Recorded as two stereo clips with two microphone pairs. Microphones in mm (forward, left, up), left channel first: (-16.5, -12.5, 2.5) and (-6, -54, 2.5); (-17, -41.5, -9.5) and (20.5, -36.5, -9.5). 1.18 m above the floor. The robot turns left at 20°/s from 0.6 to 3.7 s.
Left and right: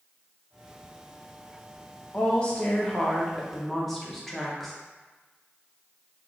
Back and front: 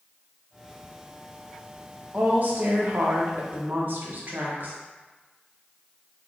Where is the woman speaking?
45° left, 0.7 m; by 4.8 s 10° left, 0.7 m.